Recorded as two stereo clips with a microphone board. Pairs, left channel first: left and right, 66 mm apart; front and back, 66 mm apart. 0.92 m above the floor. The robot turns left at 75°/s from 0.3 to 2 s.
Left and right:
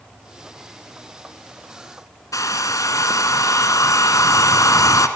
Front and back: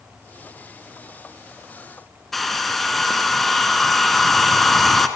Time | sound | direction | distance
2.3 | a hair dryer | 90° left | 1.6 m